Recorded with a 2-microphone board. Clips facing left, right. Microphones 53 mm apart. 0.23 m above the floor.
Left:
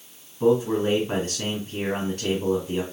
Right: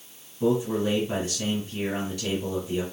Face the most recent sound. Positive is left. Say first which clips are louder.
# left 4 dB
turn(degrees=55)  # may be behind; listen again after turning